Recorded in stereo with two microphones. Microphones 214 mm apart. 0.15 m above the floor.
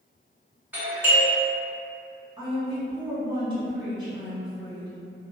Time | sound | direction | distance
0.7 | a doorbell | 10° right (ahead or behind) | 1.5 m
2.4 | a woman speaking | 20° right (ahead or behind) | 1.2 m